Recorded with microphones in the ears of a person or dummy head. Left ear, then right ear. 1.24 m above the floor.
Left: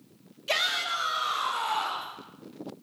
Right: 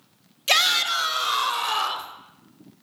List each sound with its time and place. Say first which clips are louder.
0.5 s a shout: right 7 dB; 85° right, 1.9 m